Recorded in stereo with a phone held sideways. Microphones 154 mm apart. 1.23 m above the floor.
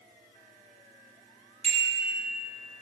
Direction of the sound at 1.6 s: 45° right (ahead or behind).